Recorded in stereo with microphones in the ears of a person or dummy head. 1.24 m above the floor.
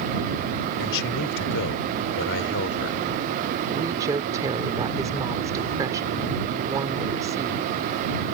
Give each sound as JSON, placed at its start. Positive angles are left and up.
{"t": 0.8, "sound": "a man speaking", "side_deg": 70}
{"t": 3.7, "sound": "a woman speaking", "side_deg": -20}